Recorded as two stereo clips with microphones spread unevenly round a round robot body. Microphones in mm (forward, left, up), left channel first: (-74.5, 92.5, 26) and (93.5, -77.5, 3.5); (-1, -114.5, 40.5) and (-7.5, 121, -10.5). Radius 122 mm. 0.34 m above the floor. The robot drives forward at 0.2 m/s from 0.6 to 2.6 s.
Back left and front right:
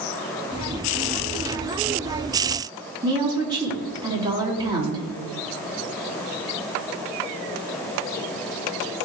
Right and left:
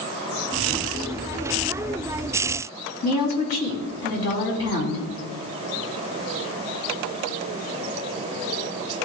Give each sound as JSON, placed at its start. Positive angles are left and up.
{"t": 3.0, "sound": "a woman speaking", "azimuth_deg": -120, "distance_m": 3.5}